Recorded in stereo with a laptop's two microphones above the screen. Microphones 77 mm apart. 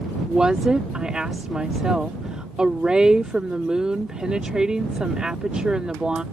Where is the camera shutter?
No camera shutter in this recording.